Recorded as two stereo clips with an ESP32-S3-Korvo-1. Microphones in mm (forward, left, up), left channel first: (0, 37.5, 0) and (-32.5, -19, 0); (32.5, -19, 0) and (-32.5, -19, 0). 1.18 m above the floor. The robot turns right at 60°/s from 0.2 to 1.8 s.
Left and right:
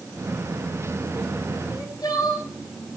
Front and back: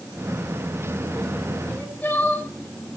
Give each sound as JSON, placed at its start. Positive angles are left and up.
{"t": 1.7, "sound": "crying", "azimuth_deg": 55, "distance_m": 7.0}